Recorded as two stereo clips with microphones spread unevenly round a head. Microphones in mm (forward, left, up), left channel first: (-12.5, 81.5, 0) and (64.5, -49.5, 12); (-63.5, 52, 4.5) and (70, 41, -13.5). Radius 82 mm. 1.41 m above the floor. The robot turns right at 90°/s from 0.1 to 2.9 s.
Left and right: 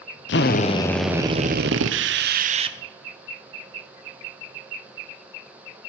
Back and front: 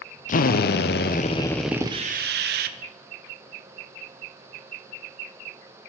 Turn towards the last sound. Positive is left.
turn(degrees=20)